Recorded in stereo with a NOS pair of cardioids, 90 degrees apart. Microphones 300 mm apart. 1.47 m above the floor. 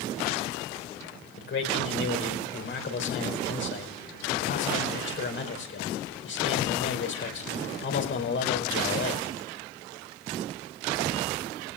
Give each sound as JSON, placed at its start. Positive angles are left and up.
{"t": 1.4, "sound": "a man speaking", "azimuth_deg": 45, "distance_m": 5.0}